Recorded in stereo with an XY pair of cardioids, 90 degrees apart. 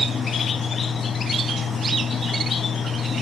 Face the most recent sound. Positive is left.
turn(degrees=45)